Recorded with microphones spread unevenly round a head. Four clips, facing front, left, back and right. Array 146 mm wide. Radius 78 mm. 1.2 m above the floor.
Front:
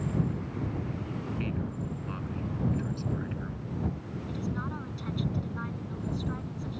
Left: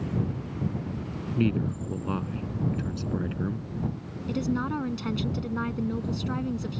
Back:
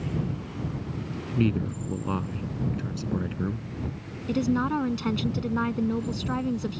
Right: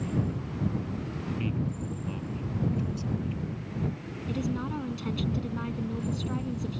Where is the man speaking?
140° left.